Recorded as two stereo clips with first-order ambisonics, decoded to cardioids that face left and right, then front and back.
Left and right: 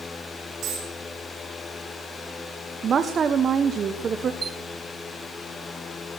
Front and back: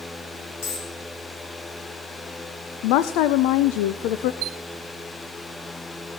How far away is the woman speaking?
About 0.7 m.